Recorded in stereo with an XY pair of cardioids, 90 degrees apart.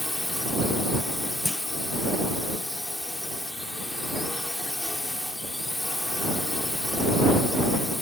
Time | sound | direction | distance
0.0 | a drone | 15° left | ?
1.4 | a clunk | 20° left | ?